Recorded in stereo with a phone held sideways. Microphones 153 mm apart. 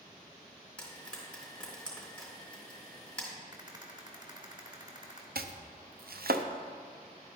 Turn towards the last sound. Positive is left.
turn(degrees=-80)